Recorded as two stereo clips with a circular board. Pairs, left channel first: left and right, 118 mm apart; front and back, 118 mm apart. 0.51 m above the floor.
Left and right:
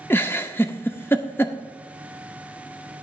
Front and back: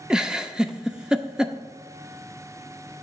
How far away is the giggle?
About 0.7 m.